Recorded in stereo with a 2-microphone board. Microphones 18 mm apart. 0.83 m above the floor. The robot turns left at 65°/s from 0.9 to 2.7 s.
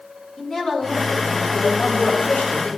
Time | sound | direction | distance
0.4 | a woman speaking | 150° left | 2.0 m